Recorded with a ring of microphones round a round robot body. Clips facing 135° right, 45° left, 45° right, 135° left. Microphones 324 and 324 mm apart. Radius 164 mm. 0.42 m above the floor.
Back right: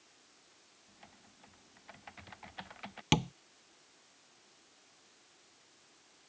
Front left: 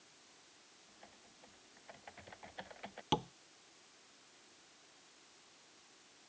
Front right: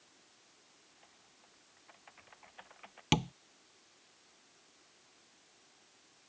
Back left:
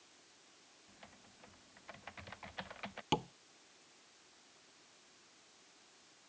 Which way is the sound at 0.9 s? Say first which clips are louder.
Back right 2 dB, back left 6 dB; 160° left.